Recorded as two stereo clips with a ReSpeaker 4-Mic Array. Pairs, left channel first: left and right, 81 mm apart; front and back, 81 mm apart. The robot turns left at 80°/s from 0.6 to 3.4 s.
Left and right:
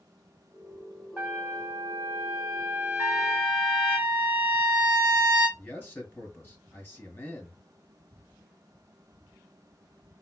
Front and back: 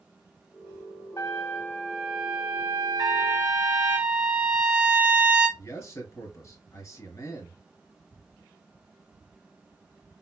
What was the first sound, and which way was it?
A trumpet, 25° right.